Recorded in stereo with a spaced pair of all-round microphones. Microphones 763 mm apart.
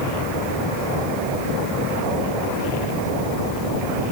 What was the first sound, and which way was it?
Only background noise.